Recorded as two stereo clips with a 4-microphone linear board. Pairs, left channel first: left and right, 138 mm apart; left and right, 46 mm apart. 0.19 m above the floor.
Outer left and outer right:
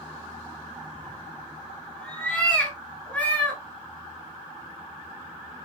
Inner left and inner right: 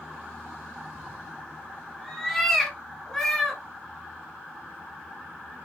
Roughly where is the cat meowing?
Centre.